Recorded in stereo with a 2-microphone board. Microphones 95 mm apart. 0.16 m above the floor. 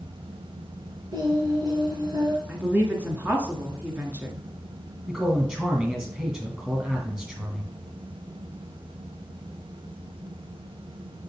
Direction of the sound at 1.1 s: 50° right (ahead or behind).